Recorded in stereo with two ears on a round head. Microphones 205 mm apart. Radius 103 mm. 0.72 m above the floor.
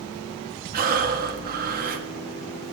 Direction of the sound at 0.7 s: 40° right (ahead or behind).